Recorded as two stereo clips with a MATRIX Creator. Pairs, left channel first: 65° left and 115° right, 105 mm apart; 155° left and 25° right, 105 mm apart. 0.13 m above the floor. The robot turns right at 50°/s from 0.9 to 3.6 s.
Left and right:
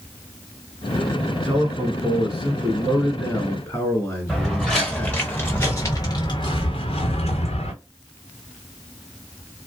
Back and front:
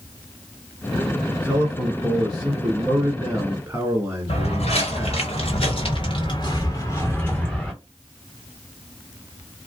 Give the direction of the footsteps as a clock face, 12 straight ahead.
7 o'clock.